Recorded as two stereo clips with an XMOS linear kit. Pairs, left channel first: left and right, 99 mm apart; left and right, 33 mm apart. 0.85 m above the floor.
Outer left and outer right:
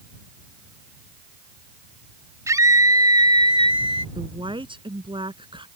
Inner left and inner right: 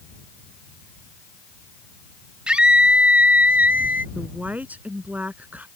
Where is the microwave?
I don't hear a microwave.